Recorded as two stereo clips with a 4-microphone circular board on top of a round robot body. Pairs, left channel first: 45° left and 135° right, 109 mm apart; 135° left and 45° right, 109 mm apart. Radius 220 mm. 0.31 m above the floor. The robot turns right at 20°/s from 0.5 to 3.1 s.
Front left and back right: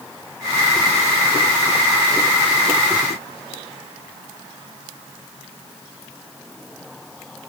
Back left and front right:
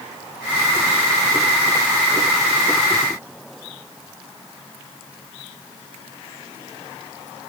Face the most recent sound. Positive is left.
No sound to turn to.